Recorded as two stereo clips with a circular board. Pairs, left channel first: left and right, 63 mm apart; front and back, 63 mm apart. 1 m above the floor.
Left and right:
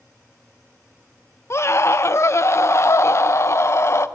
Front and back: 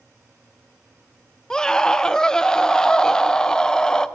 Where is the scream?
75° left, 0.6 m.